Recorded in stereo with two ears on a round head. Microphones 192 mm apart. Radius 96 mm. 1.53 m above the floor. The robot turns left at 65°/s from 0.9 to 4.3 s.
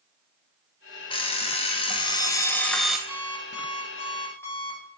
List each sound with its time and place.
1.1 s an alarm clock: 25° left (ahead or behind), 0.6 m; by 3.0 s 5° right (ahead or behind), 0.6 m
3.1 s an alarm clock: 110° right, 4 m; by 4.8 s 170° left, 4 m